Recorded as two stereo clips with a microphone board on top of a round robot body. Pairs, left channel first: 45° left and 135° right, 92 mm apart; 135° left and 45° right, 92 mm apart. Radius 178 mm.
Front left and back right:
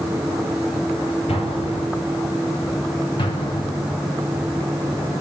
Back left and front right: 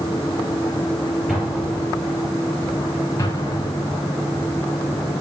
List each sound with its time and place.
1.3 s an explosion: 45° left, 6.5 m
3.2 s an explosion: 80° left, 4 m